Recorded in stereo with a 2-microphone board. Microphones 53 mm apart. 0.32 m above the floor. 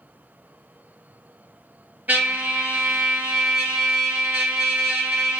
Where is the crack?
No crack in this recording.